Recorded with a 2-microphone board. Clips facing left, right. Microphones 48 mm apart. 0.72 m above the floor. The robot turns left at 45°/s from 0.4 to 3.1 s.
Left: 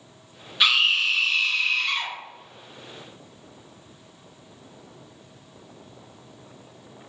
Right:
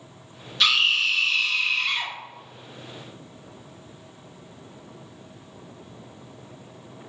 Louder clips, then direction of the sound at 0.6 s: Even; 15° left (ahead or behind).